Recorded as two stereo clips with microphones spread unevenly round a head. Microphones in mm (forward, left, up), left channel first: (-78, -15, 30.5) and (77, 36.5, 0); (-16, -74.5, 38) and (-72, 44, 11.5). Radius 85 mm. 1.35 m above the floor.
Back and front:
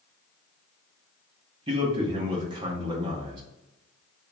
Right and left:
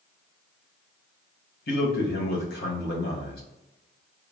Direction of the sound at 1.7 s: 45° right.